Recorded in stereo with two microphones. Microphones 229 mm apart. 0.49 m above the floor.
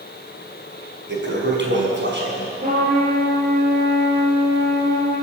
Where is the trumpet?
40° right (ahead or behind), 7 m.